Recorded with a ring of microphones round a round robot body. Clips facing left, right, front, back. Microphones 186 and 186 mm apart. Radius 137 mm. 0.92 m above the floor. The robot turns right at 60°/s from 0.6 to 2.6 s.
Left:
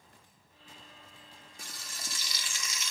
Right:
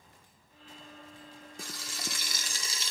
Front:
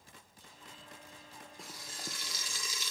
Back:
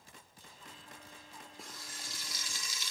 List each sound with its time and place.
1.6 s frying: 90° right, 1.1 m; by 2.9 s 30° right, 1.1 m